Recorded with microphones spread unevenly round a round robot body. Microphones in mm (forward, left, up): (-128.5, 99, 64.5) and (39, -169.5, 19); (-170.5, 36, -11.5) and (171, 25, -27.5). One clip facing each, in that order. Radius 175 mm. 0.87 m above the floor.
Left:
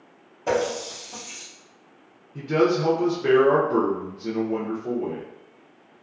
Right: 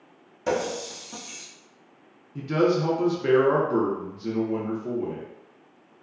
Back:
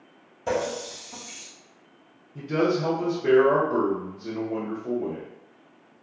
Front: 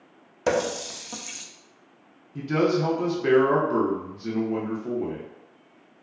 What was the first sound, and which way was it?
A running tap, straight ahead.